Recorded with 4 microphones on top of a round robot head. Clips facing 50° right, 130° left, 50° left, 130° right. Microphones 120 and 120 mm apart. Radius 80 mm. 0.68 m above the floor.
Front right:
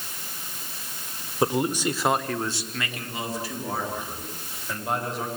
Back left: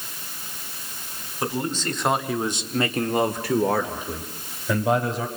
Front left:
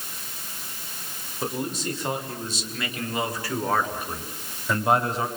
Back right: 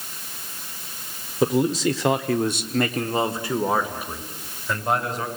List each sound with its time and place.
1.4 s a man speaking: 120° right, 2.5 m; by 5.3 s 130° left, 4 m